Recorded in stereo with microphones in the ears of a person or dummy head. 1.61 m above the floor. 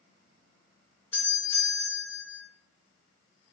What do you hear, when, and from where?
1.1 s a doorbell: 15° left (ahead or behind), 0.8 m